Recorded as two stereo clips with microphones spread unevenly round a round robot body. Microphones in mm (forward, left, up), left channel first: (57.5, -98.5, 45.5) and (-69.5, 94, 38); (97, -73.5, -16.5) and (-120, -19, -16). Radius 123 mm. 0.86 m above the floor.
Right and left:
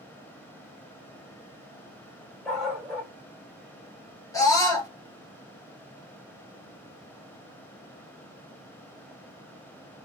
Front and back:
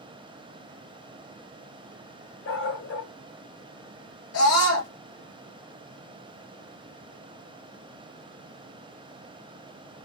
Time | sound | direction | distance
2.5 | a dog barking | 30° left | 1.5 m
4.3 | a scream | 20° left | 2 m